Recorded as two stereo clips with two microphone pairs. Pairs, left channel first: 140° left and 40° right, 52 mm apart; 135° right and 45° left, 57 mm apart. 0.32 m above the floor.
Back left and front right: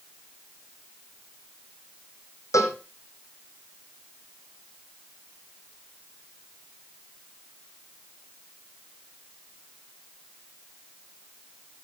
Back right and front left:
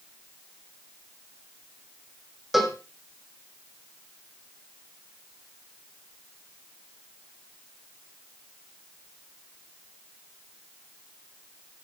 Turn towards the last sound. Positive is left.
turn(degrees=130)